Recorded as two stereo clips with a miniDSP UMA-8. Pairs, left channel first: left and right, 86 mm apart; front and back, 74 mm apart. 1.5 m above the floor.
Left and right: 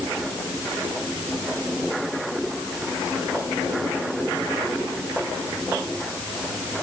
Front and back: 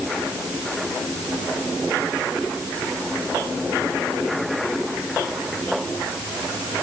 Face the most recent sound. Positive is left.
No sound to turn to.